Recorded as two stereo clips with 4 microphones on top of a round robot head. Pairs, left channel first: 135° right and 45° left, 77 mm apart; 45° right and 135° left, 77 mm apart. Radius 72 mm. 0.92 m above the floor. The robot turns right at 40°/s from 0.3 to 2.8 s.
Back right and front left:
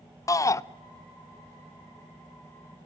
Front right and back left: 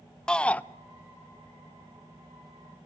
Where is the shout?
120° right, 0.6 m; by 0.6 s 110° right, 0.6 m.